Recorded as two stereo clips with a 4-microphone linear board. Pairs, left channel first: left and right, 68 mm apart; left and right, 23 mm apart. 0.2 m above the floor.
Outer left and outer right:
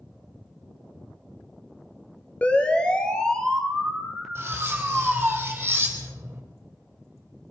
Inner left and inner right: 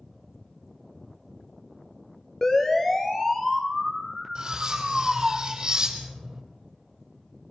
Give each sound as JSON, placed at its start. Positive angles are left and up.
{"t": 2.4, "sound": "a siren", "side_deg": 20, "distance_m": 3.5}
{"t": 4.3, "sound": "cutlery clinking", "side_deg": -35, "distance_m": 5.0}